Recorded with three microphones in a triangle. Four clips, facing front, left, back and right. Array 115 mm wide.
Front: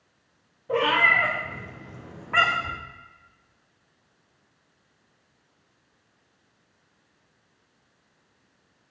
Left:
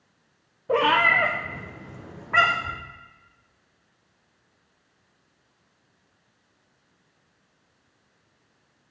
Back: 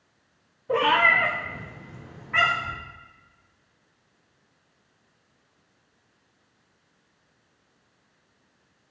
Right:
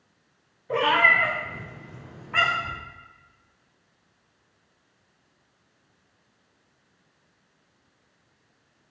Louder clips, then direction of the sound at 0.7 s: Left 1 dB, back 1 dB; 95° left.